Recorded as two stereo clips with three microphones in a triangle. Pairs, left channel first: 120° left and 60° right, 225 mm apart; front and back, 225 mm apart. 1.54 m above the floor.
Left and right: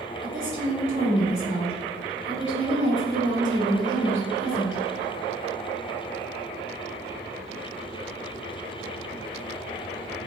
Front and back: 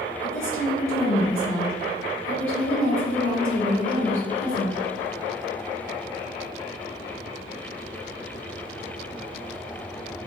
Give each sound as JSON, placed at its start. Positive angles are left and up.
{"t": 0.2, "sound": "a woman speaking", "azimuth_deg": -25, "distance_m": 3.0}